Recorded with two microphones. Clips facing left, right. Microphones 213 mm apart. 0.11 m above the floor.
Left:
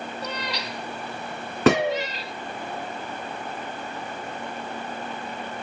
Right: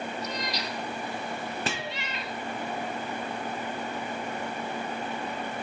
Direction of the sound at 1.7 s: 70° left (ahead or behind).